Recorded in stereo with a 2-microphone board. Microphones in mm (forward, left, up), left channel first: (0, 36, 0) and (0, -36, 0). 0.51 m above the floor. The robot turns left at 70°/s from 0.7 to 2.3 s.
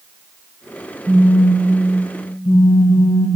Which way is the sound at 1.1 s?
160° right.